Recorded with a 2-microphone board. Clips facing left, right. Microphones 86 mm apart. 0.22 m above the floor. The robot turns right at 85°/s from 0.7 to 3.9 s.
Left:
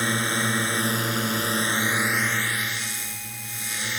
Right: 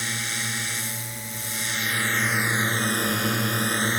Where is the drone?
50° left; by 4.0 s 40° right.